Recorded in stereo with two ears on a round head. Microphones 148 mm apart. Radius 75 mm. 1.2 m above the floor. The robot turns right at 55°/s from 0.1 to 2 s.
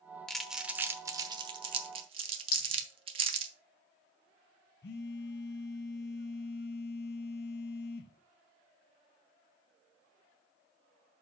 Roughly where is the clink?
Left.